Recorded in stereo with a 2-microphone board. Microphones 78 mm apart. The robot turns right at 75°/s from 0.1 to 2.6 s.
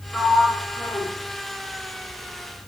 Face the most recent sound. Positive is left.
turn(degrees=-170)